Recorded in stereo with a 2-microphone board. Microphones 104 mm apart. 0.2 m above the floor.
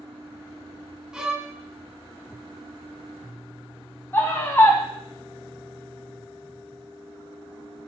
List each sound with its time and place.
1.1 s a violin: 5° right (ahead or behind), 0.9 m
4.1 s a scream: 20° left (ahead or behind), 1.4 m